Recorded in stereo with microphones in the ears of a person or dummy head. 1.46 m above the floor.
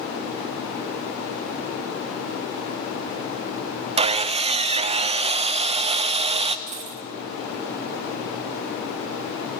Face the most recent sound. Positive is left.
turn(degrees=-40)  # may be behind; listen again after turning